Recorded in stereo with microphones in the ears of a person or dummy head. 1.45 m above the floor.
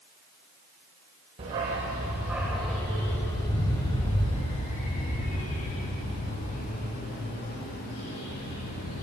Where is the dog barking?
30° right (ahead or behind), 1.4 m; by 9.0 s 45° left (ahead or behind), 4.5 m.